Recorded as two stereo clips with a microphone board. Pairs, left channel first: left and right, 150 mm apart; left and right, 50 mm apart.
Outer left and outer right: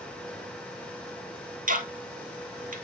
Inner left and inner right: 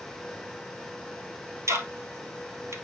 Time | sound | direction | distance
1.7 | ticking | 65° right (ahead or behind) | 1.1 m